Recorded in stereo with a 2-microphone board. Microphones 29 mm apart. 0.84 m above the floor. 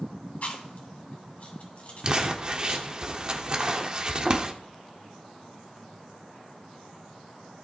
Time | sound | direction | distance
0.4 | chewing | 60° left (ahead or behind) | 2.5 m
2.0 | crumpling | 30° right (ahead or behind) | 0.9 m